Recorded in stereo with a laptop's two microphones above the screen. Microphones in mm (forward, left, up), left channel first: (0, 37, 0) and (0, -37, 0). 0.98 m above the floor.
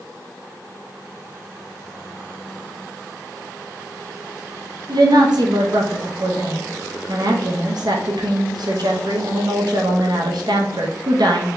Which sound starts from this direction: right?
A woman speaking, at 4.9 s.